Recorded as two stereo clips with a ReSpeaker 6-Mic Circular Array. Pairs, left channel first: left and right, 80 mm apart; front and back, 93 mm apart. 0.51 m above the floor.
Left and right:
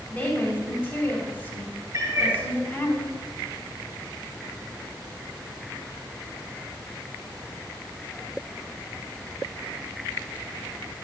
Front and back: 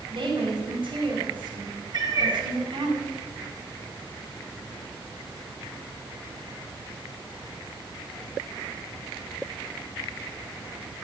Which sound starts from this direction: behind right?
A cat meowing, at 1.9 s.